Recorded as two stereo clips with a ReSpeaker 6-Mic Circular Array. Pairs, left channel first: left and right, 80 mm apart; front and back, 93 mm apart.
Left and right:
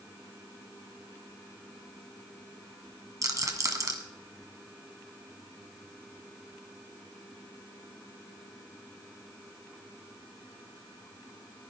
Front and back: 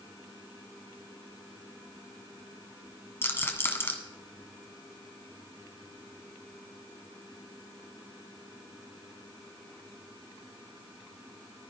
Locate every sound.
3.2 s a rattle: 60° right, 1.6 m